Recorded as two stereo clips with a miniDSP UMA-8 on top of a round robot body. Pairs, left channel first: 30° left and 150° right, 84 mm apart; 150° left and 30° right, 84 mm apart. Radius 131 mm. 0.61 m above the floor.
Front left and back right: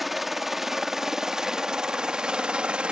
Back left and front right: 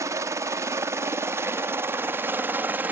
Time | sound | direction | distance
0.0 | a helicopter | 60° right | ?